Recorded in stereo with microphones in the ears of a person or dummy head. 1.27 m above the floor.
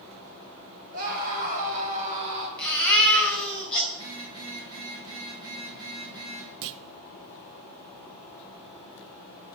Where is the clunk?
65° right (ahead or behind), 0.6 m.